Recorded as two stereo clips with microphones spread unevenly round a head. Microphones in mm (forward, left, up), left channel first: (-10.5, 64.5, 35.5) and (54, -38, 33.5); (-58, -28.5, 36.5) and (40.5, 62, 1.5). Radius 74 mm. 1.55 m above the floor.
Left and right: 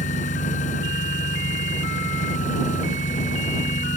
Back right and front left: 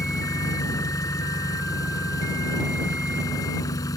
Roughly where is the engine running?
Behind.